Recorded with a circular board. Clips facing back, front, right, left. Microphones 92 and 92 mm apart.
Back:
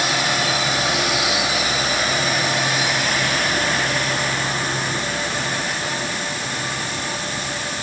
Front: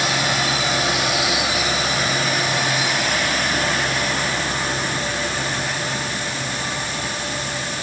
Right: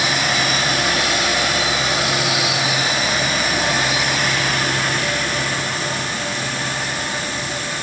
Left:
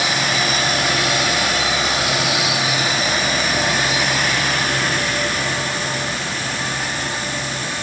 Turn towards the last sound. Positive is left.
No sound to turn to.